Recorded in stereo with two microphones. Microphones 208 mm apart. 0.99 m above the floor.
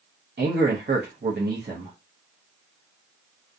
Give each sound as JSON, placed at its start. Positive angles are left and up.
{"t": 0.4, "sound": "a man speaking", "side_deg": -55, "distance_m": 0.7}